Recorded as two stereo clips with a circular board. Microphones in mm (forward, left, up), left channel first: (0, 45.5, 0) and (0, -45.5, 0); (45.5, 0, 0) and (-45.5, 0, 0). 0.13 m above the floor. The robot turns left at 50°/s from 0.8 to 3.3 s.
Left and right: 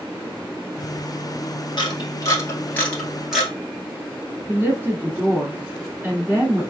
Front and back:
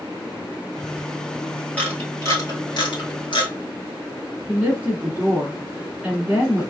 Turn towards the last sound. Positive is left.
turn(degrees=-120)